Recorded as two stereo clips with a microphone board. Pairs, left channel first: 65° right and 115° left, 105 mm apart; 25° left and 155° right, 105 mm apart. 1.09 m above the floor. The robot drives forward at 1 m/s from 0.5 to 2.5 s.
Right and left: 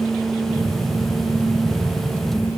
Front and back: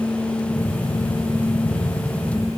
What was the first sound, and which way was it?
Only background noise.